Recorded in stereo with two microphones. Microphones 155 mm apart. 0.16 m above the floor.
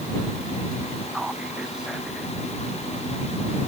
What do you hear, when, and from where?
1.1 s whispering: 5° right (ahead or behind)